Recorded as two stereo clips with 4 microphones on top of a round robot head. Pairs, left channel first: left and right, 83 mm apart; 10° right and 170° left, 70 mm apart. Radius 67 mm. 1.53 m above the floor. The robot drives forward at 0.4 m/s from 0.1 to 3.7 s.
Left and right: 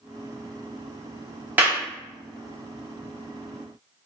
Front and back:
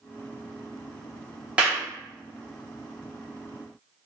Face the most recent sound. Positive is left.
turn(degrees=-170)